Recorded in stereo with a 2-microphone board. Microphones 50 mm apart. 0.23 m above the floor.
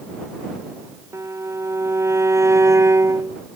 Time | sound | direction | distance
1.1 | a violin | 75° right (ahead or behind) | ?